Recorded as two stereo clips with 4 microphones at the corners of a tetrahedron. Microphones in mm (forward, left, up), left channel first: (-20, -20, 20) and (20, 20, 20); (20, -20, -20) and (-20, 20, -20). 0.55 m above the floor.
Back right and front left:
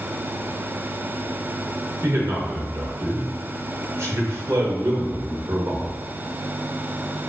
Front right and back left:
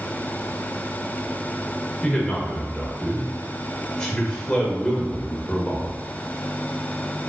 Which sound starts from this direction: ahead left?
A man speaking, at 2.0 s.